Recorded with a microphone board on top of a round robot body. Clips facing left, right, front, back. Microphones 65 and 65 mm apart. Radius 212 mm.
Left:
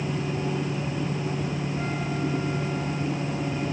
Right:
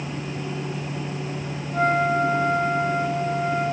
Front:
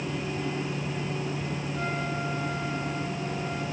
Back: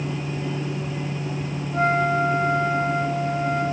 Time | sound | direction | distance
1.7 | a flute | 135° right | ?